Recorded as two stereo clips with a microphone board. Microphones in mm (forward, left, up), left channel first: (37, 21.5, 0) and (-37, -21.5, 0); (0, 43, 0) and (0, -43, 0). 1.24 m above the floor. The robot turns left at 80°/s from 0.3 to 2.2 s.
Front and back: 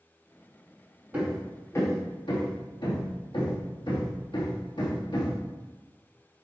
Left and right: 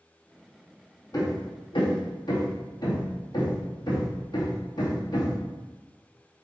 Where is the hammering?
140° left, 2 m; by 5.4 s 55° left, 2 m.